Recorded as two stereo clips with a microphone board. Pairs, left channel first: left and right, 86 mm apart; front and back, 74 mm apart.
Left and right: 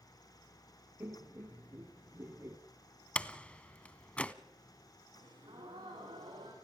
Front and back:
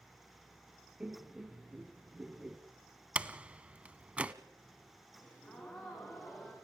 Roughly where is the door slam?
Behind left.